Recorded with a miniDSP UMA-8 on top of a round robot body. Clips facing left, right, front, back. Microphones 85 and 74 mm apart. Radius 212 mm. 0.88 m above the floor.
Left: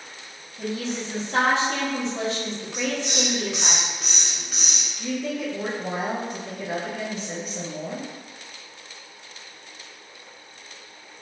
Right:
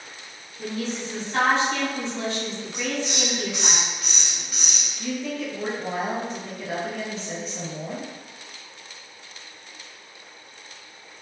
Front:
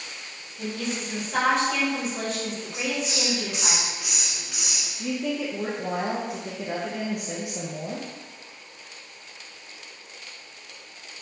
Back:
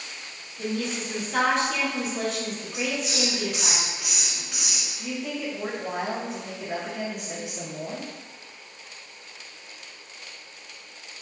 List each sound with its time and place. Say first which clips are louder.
0.6 s a woman speaking: left 1 dB, back 1 dB; 85° left, 1.3 m
2.7 s a hiss: left 2 dB, back 1 dB; 85° left, 1.4 m
5.0 s a woman speaking: left 1 dB, front 4 dB; 10° left, 0.7 m